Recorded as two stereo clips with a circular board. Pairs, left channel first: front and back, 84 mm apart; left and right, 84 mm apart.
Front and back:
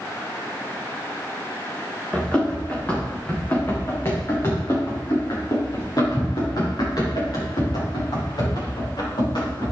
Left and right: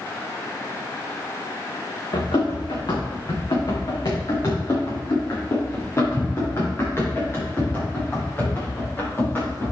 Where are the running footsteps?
80° left, 4.5 m; by 9.7 s 20° left, 8.5 m.